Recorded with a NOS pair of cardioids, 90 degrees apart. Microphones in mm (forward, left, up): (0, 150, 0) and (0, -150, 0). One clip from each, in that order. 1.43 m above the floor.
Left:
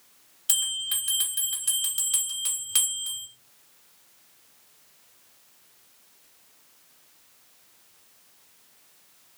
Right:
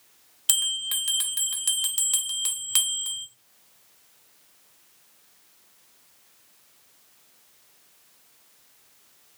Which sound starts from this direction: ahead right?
A bell, at 0.5 s.